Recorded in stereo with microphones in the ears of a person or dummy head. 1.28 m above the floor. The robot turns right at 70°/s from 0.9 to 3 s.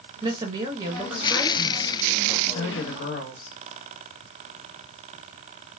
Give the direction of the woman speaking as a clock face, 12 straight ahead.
1 o'clock.